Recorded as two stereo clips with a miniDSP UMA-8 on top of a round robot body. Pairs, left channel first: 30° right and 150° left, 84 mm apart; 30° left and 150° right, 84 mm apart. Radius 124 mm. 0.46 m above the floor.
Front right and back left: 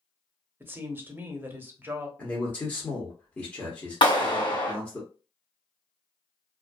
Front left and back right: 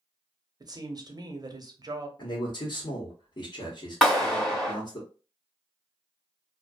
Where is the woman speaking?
155° right, 0.9 m.